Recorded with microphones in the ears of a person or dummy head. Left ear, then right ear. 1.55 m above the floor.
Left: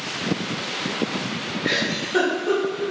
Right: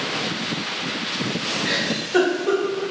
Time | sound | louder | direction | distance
1.6 | a giggle | even | 35° right (ahead or behind) | 0.9 m